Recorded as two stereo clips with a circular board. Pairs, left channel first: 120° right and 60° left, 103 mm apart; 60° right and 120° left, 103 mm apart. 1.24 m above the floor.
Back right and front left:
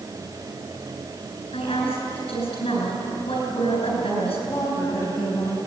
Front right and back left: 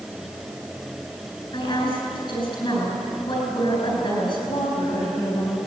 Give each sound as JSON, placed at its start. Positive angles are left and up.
{"t": 1.5, "sound": "a woman speaking", "azimuth_deg": -95, "distance_m": 8.0}
{"t": 4.5, "sound": "a woman speaking", "azimuth_deg": -55, "distance_m": 6.5}